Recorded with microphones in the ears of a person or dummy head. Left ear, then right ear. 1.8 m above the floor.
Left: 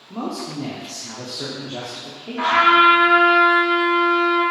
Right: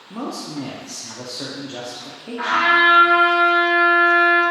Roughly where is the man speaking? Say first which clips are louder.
Left 1 dB; centre.